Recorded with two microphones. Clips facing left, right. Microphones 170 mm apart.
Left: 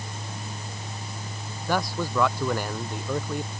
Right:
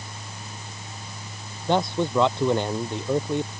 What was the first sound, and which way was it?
A man speaking, 25° right (ahead or behind).